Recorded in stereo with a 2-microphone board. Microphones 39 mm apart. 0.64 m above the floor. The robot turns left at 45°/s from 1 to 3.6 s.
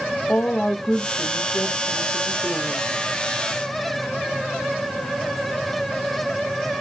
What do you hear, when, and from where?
0.3 s a woman speaking: 115° left, 0.7 m; by 2.9 s 30° left, 0.7 m